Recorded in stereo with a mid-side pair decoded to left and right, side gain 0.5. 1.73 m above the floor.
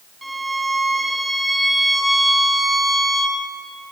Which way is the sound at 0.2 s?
5° right.